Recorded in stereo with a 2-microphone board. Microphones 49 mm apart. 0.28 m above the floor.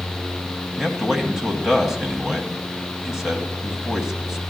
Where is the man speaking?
5° right (ahead or behind), 1.5 m.